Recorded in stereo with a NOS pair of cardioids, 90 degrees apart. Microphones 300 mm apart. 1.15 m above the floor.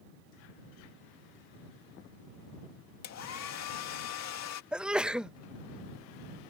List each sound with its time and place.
3.0 s a hair dryer: 60° left
4.7 s a sneeze: 5° right